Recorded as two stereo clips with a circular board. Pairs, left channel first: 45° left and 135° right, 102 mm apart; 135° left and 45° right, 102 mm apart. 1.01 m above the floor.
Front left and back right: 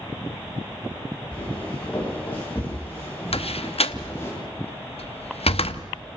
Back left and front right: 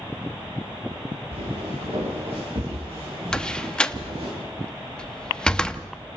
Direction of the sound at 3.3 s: 55° left.